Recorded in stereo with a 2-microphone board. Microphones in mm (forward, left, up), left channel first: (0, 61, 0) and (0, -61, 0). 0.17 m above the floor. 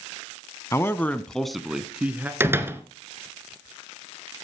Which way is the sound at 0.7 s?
20° left (ahead or behind).